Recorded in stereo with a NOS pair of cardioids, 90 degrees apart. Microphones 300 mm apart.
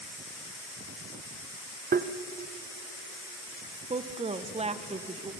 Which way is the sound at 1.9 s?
30° right.